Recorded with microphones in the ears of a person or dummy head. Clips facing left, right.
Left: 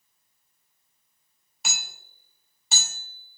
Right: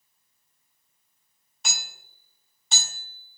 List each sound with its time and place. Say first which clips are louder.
1.6 s hammering: even; 5° left (ahead or behind), 0.8 m